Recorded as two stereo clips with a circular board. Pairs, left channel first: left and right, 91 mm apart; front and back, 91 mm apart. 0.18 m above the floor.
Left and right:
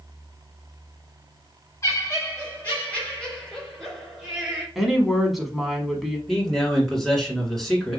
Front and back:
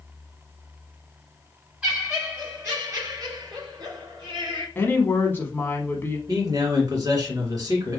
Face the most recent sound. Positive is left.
turn(degrees=175)